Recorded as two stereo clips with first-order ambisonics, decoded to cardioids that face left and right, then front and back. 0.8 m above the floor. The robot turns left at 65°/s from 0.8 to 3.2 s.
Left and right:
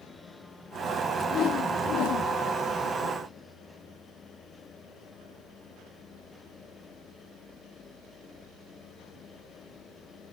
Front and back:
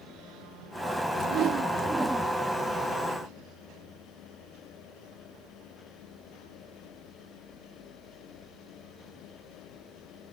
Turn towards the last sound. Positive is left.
turn(degrees=20)